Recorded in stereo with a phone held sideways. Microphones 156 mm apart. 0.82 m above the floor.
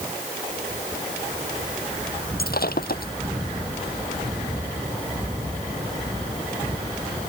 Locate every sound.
2.4 s breaking glass: 80° left